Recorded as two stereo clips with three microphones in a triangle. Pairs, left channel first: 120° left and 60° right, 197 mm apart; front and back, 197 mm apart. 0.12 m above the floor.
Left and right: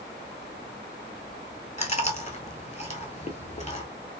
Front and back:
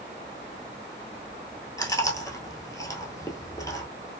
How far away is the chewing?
About 0.7 m.